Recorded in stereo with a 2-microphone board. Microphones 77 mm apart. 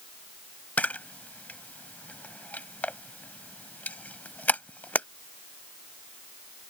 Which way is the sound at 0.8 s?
20° left (ahead or behind).